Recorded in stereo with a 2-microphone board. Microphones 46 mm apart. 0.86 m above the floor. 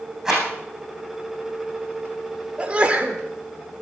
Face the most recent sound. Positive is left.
turn(degrees=-30)  # may be behind; listen again after turning